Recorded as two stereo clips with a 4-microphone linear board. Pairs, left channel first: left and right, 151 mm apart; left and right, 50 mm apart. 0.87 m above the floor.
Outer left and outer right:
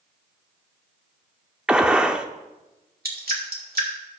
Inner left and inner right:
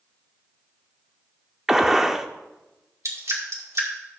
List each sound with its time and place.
1.7 s a gunshot: 5° right (ahead or behind), 0.6 m
3.0 s dripping: 75° right (ahead or behind), 2 m